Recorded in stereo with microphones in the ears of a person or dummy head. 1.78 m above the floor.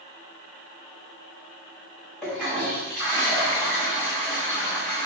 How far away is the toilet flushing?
About 1.3 m.